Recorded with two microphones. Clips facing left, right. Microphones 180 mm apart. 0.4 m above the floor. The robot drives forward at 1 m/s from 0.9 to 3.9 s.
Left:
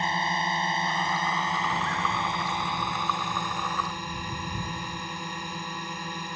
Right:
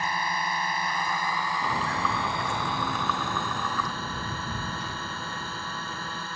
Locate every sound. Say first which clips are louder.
0.0 s a drone: left 2 dB; 25° left (ahead or behind); by 6.4 s 15° left (ahead or behind)
1.6 s footsteps: right 1 dB; 20° right (ahead or behind); by 6.3 s 70° right (ahead or behind)